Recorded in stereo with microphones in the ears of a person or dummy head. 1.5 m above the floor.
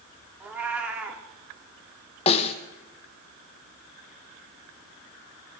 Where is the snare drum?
30° left (ahead or behind), 1.1 m.